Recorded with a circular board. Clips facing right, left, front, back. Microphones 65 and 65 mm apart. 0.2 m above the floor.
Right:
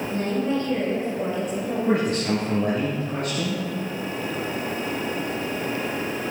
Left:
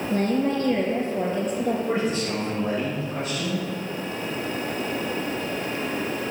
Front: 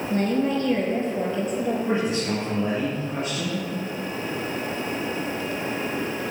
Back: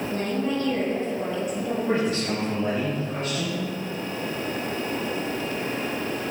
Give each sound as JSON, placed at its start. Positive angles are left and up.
{"t": 0.1, "sound": "a woman speaking", "azimuth_deg": 50, "distance_m": 4.0}
{"t": 1.9, "sound": "a man speaking", "azimuth_deg": -90, "distance_m": 3.5}